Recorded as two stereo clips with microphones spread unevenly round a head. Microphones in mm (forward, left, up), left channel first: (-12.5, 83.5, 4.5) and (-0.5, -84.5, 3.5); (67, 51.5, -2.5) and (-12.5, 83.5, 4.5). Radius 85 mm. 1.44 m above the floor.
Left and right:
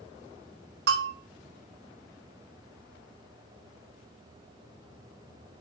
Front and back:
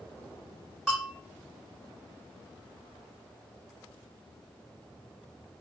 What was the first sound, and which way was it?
A bell, 115° right.